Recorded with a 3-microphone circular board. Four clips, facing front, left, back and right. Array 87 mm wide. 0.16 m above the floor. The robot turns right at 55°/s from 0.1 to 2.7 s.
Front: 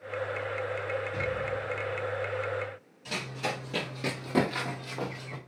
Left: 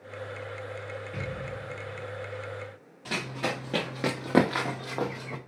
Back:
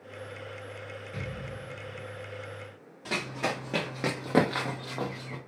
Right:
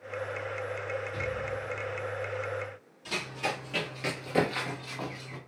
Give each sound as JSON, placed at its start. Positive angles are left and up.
{"t": 1.1, "sound": "an explosion", "azimuth_deg": 85, "distance_m": 1.3}
{"t": 3.0, "sound": "running footsteps", "azimuth_deg": 150, "distance_m": 1.8}